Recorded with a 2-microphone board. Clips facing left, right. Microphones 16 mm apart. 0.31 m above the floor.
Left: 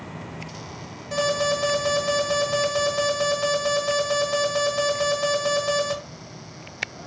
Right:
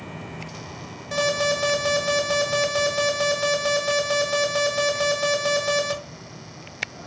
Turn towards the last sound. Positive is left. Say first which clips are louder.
# right 1 dB
turn(degrees=-10)  # may be behind; listen again after turning